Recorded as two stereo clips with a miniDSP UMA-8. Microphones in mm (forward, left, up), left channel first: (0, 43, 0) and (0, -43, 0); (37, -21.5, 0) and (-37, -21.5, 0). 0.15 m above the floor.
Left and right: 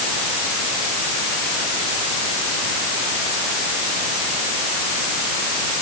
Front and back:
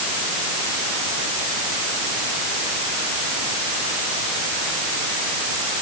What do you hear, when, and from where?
Only background noise.